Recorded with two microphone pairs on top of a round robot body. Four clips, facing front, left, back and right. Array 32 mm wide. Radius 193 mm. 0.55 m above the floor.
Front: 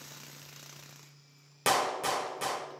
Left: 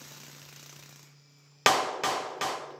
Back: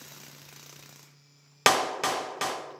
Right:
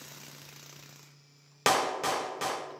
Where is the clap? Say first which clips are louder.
Left 2 dB, back 4 dB; 150° left, 0.6 m.